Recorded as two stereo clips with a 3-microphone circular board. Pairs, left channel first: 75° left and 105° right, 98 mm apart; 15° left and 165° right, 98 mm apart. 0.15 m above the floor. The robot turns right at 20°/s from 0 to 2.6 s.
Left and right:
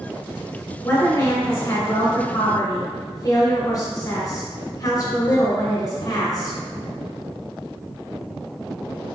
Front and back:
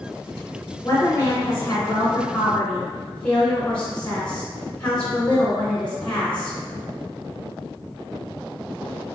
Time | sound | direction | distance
0.8 | a woman speaking | 50° left | 1.6 m